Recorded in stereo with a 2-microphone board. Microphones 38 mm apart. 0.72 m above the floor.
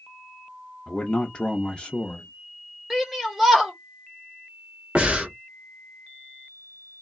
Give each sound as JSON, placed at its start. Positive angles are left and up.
{"t": 0.9, "sound": "a man speaking", "side_deg": 25, "distance_m": 0.5}
{"t": 2.9, "sound": "a shout", "side_deg": -5, "distance_m": 1.1}
{"t": 5.0, "sound": "breathing", "side_deg": -30, "distance_m": 0.9}